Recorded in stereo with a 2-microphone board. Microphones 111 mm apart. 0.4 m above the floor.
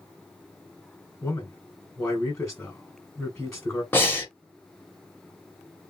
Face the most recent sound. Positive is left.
turn(degrees=20)  # may be behind; listen again after turning